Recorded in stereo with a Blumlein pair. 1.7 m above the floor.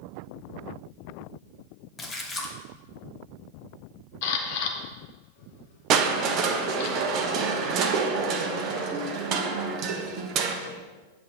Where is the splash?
15° left, 1.3 m.